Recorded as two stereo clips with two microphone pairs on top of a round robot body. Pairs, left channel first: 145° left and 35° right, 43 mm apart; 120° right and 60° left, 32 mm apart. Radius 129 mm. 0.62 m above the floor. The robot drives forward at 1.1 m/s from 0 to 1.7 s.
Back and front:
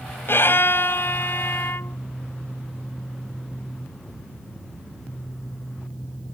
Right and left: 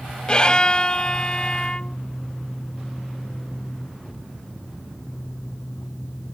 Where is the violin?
Straight behind.